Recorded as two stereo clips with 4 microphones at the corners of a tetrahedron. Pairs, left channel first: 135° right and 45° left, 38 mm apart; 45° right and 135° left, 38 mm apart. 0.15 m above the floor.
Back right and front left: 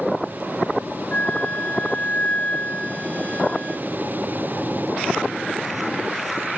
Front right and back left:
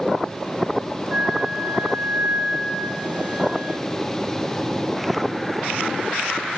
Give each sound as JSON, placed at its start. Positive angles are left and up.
{"t": 1.1, "sound": "a flute", "azimuth_deg": -175, "distance_m": 2.5}